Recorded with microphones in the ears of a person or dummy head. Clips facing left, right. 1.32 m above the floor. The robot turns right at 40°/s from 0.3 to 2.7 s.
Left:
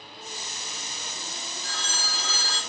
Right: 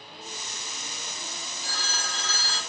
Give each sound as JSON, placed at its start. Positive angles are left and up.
{"t": 1.6, "sound": "a phone ringing", "azimuth_deg": -15, "distance_m": 2.5}